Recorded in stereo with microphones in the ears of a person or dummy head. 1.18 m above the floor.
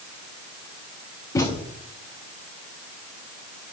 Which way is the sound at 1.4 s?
20° left (ahead or behind).